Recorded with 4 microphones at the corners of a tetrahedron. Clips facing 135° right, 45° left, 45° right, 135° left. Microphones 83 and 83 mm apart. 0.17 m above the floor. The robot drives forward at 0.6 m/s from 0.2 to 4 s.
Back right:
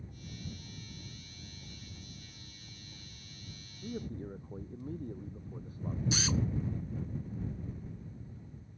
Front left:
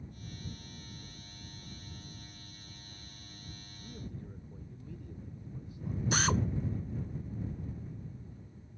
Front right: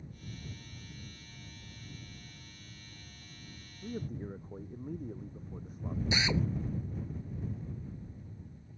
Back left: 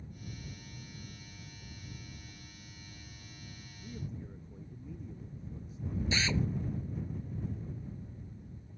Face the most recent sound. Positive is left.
turn(degrees=25)